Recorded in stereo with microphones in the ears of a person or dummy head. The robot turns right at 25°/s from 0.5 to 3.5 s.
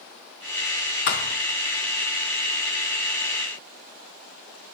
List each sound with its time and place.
1.1 s a thud: 45° left (ahead or behind), 0.7 m